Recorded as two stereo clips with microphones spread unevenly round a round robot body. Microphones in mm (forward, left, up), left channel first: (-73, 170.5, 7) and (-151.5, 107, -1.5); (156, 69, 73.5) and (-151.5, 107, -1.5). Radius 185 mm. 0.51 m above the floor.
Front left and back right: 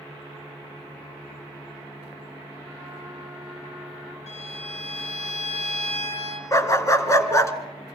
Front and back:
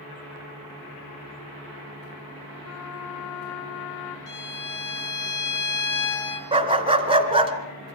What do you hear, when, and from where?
2.6 s a trumpet: 60° right, 1.6 m
4.3 s a violin: 20° left, 3.5 m
6.5 s a dog barking: 100° left, 2.5 m